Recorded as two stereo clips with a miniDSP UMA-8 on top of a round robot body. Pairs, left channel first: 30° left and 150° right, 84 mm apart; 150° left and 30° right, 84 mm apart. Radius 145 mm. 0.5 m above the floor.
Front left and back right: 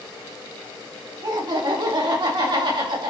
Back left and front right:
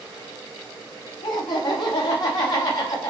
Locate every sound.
1.2 s laughter: 175° left, 4.5 m; by 3.1 s 170° right, 5 m